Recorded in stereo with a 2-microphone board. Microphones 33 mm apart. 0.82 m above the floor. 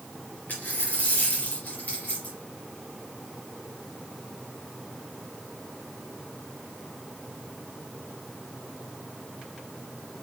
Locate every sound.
0.5 s a dropped coin: 65° left (ahead or behind), 3.5 m